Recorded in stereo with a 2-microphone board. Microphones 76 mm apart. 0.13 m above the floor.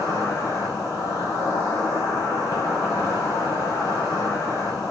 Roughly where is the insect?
Left.